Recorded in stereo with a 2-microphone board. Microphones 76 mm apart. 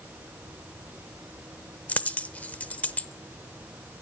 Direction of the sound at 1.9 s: 20° left (ahead or behind).